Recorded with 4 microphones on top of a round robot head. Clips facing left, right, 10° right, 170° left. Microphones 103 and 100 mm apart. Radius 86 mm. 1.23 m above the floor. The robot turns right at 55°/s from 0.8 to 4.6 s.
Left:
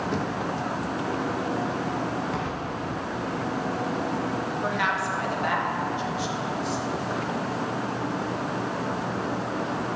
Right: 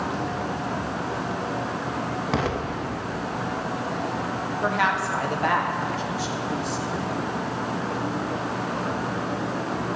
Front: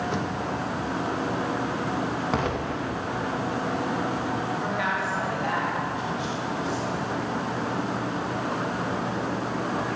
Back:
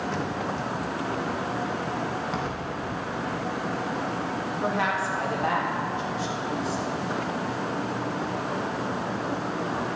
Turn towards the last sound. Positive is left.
turn(degrees=-135)